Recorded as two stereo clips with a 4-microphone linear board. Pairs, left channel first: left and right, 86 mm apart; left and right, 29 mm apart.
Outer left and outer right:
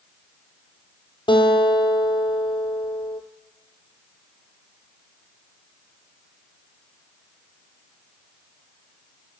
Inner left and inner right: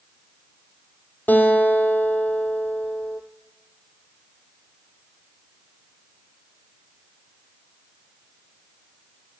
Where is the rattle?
No rattle in this recording.